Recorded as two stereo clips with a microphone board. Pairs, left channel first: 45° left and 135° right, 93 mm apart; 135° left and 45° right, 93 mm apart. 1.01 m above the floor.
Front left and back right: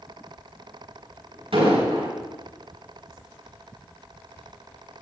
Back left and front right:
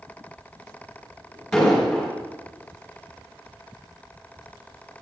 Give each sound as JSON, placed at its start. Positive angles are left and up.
{"t": 1.5, "sound": "an explosion", "azimuth_deg": -135, "distance_m": 6.0}